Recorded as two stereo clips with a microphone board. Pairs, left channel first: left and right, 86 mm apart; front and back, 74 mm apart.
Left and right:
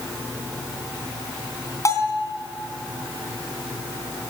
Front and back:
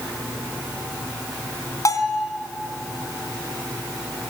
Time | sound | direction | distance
1.9 | a bell | 40° left | 3 m